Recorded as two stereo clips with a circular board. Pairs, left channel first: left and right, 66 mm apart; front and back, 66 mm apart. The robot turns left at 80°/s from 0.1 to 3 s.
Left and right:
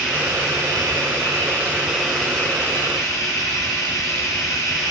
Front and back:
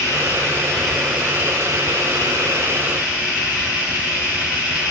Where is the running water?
25° right, 9 m; by 4.9 s 105° left, 9 m.